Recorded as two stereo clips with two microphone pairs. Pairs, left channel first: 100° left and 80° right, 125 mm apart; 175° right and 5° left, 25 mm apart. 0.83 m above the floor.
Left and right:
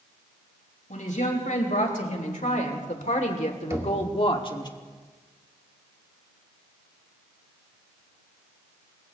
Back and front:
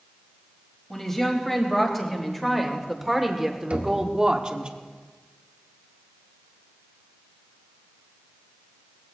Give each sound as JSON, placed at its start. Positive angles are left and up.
{"t": 0.9, "sound": "a woman speaking", "azimuth_deg": 105, "distance_m": 4.0}
{"t": 3.7, "sound": "knocking", "azimuth_deg": -15, "distance_m": 2.0}